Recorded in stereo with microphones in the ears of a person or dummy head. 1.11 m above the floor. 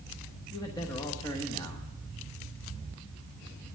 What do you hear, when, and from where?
0.5 s a man speaking: 15° left (ahead or behind), 1.1 m